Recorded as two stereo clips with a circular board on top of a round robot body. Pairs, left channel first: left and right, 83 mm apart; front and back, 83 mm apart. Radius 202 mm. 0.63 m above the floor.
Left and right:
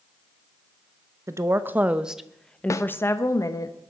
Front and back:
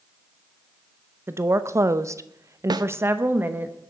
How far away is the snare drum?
About 0.8 m.